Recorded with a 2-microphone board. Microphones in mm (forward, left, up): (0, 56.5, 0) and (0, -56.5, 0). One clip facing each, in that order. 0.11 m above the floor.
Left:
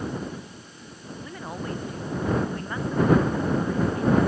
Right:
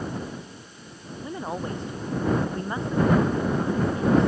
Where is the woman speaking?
25° right (ahead or behind).